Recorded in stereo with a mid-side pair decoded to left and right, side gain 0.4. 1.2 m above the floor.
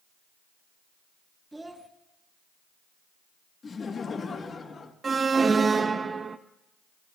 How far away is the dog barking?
I don't hear a dog barking.